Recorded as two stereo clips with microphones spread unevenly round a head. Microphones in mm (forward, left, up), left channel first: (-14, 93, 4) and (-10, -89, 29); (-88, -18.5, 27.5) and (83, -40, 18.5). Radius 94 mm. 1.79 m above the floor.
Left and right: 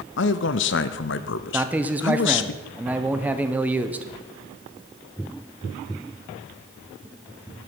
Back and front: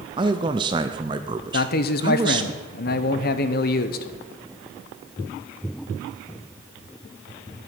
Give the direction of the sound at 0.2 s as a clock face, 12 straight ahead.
10 o'clock.